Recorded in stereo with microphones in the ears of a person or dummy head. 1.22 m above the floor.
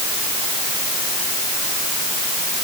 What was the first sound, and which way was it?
Only background noise.